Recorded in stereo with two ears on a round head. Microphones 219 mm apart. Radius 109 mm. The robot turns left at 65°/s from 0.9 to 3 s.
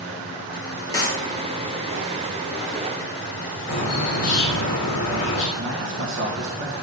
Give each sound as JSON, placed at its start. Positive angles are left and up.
{"t": 0.9, "sound": "a clap", "side_deg": 15, "distance_m": 2.0}
{"t": 3.7, "sound": "a bird", "side_deg": 65, "distance_m": 2.5}
{"t": 5.6, "sound": "a man speaking", "side_deg": -55, "distance_m": 2.5}